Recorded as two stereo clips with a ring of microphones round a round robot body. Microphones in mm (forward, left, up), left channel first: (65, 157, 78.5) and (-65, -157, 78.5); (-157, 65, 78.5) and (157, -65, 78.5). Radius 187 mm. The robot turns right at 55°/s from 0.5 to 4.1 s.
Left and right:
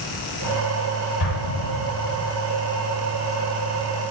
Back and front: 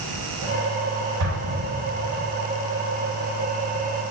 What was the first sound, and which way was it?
An explosion, 25° left.